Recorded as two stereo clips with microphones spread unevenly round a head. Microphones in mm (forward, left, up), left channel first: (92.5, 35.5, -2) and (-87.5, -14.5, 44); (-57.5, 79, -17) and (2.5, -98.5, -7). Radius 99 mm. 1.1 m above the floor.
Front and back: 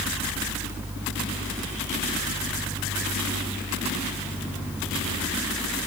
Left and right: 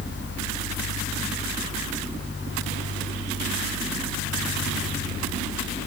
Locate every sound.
Only background noise.